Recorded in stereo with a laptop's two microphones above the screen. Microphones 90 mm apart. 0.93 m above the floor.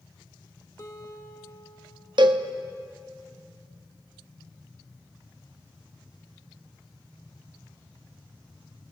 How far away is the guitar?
About 1.7 m.